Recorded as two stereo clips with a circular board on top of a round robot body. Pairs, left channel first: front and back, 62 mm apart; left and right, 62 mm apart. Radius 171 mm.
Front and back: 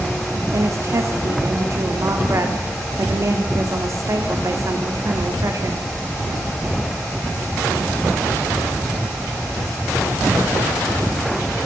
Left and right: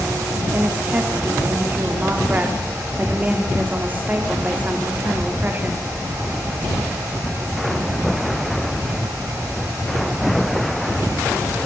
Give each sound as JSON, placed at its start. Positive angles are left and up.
{"t": 0.5, "sound": "a woman speaking", "azimuth_deg": -150, "distance_m": 2.5}